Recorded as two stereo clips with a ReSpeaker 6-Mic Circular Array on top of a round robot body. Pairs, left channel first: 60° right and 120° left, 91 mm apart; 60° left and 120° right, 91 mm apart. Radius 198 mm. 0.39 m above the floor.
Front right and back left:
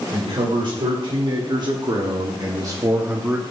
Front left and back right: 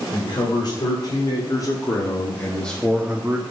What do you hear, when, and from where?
0.1 s a man speaking: 90° left, 2.5 m; by 3.4 s 170° right, 1.2 m